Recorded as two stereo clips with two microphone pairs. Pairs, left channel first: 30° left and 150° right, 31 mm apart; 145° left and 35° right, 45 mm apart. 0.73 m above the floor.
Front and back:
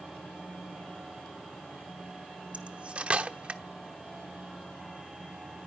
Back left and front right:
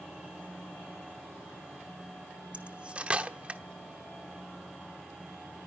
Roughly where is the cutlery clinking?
Right.